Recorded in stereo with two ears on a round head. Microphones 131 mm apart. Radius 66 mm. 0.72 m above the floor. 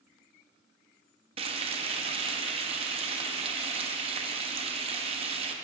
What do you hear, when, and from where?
1.4 s frying: 40° right (ahead or behind), 0.7 m